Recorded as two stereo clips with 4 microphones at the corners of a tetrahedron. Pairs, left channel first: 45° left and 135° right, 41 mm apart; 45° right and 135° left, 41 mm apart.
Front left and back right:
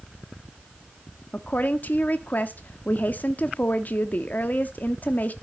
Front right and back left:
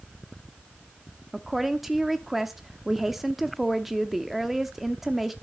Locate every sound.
1.3 s a woman speaking: 55° left, 0.8 m